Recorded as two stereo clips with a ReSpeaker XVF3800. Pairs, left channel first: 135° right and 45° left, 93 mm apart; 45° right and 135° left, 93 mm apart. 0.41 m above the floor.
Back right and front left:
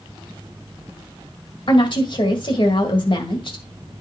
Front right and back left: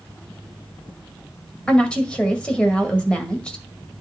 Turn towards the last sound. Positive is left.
turn(degrees=-125)